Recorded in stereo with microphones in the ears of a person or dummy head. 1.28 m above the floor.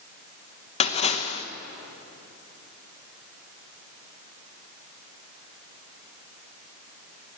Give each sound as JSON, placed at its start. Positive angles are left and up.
{"t": 0.8, "sound": "a splash", "side_deg": 35, "distance_m": 1.0}